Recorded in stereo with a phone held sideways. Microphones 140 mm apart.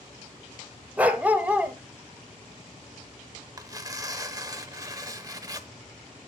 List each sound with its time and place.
1.0 s a dog barking: 10° right (ahead or behind), 0.9 m
3.6 s tearing paper: 25° right (ahead or behind), 0.9 m